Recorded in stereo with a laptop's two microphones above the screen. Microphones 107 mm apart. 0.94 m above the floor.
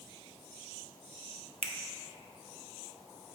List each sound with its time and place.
1.6 s a finger snap: 70° right (ahead or behind), 0.6 m